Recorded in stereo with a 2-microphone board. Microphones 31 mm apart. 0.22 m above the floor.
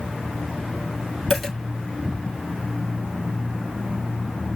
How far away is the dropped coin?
About 3 m.